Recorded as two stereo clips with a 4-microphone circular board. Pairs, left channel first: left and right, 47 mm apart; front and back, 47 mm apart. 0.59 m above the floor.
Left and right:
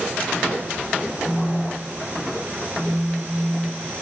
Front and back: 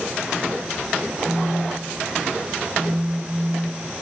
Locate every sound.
1.2 s a phone buzzing: 145° left, 1.0 m